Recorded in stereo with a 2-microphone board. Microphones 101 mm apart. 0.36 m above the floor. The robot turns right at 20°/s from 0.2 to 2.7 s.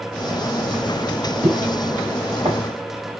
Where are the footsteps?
15° right (ahead or behind), 2 m; by 2.6 s 65° right (ahead or behind), 1.7 m.